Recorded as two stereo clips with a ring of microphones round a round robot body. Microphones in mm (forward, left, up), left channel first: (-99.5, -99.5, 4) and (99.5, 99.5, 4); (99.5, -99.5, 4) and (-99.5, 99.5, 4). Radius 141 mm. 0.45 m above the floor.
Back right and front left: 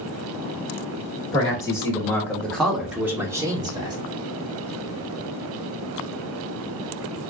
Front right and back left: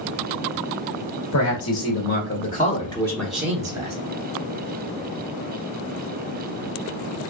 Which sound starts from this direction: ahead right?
A man speaking, at 1.3 s.